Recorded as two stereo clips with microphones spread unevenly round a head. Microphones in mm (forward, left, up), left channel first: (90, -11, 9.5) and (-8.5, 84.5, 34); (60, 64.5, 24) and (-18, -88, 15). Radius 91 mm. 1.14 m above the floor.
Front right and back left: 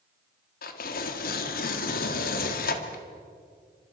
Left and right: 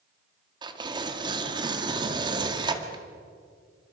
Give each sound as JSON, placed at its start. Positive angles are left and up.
{"t": 0.6, "sound": "tearing paper", "azimuth_deg": -55, "distance_m": 2.0}